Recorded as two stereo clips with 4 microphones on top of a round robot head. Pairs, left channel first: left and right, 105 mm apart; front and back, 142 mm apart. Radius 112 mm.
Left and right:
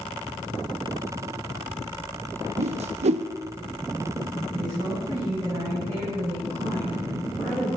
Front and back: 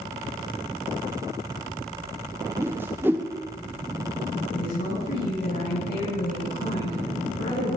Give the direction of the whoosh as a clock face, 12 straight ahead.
3 o'clock.